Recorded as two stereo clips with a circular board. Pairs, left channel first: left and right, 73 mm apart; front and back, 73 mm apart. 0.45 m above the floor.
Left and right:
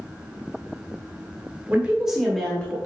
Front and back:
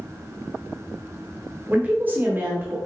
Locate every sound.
1.7 s a woman speaking: 135° right, 1.0 m; by 2.8 s 140° left, 1.0 m